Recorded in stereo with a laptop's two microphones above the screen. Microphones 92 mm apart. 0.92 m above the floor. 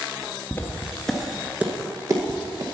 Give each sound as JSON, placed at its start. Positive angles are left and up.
{"t": 0.5, "sound": "footsteps", "side_deg": 25, "distance_m": 1.0}